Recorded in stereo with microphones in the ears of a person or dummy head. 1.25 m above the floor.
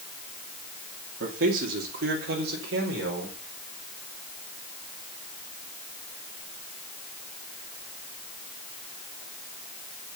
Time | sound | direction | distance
1.2 | a man speaking | 75° right (ahead or behind) | 3 m